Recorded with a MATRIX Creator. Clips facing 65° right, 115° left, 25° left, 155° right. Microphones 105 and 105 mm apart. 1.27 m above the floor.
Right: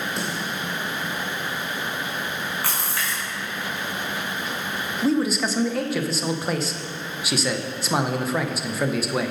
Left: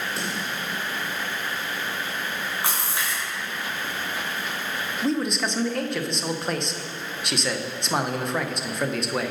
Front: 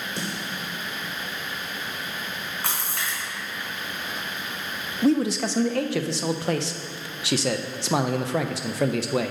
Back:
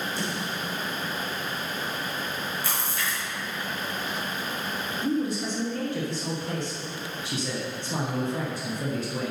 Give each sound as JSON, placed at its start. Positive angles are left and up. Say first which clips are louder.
{"t": 0.2, "sound": "a snare drum", "louder": "right 2 dB, back 1 dB", "azimuth_deg": 25, "distance_m": 3.0}
{"t": 2.6, "sound": "a splash", "louder": "even, even", "azimuth_deg": 45, "distance_m": 3.5}
{"t": 5.0, "sound": "a man speaking", "louder": "right 4 dB, front 6 dB", "azimuth_deg": 20, "distance_m": 0.7}